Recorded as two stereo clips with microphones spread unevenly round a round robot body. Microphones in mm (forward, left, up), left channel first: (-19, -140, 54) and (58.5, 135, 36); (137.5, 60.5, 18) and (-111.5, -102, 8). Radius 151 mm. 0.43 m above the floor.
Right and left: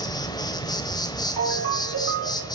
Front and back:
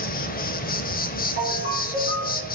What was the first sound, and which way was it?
An insect, 30° right.